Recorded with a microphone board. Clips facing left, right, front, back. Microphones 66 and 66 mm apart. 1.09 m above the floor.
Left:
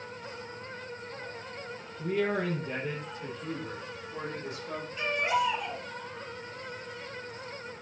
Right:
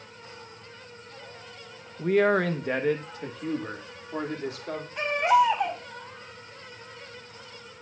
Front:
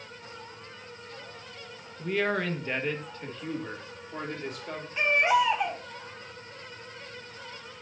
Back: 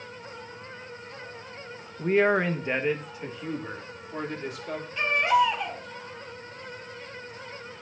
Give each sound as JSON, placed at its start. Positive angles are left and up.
{"t": 2.0, "sound": "a man speaking", "azimuth_deg": -125, "distance_m": 0.8}
{"t": 5.0, "sound": "a baby crying", "azimuth_deg": -70, "distance_m": 4.0}